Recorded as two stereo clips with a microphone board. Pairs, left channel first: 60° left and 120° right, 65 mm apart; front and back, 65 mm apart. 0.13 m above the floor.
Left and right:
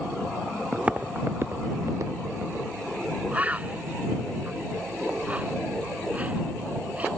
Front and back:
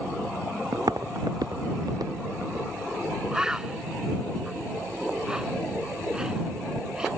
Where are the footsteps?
160° left; by 2.7 s 155° right.